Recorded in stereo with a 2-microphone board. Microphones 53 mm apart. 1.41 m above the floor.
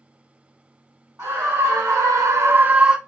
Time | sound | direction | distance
1.2 | a scream | 65° right (ahead or behind) | 1.1 m